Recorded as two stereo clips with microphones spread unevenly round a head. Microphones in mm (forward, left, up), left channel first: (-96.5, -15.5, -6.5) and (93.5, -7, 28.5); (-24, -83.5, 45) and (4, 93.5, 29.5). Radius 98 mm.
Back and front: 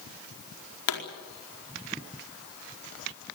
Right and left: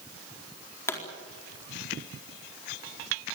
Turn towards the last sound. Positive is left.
turn(degrees=-175)